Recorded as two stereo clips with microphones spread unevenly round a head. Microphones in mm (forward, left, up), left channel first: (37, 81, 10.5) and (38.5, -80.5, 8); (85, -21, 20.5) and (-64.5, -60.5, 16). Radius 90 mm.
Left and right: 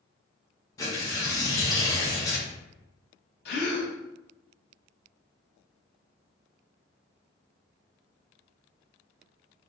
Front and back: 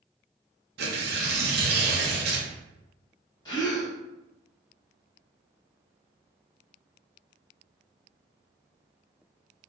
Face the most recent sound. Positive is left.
turn(degrees=85)